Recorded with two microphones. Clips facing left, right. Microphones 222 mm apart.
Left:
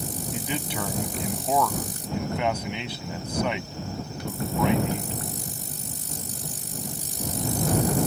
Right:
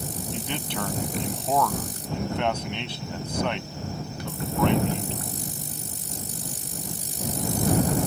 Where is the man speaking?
5° left (ahead or behind).